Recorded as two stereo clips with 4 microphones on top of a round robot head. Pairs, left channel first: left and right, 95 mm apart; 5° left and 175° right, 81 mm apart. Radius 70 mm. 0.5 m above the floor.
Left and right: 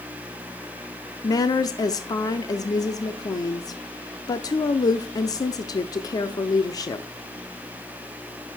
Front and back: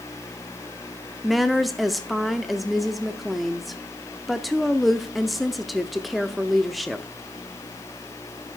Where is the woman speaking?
95° left, 0.8 m.